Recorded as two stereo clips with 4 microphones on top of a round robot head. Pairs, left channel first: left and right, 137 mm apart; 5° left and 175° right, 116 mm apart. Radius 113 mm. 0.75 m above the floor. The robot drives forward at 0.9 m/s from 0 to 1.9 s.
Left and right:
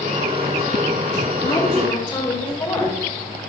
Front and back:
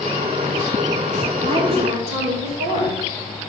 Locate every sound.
1.4 s a woman speaking: 145° left, 4 m; by 3.0 s 150° left, 4.5 m